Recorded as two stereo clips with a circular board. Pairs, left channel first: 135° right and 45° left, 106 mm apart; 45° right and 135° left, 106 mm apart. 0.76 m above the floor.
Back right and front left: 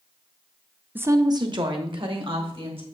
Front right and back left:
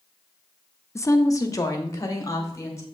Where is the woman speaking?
15° right, 0.6 m; by 2.8 s 15° left, 2.5 m.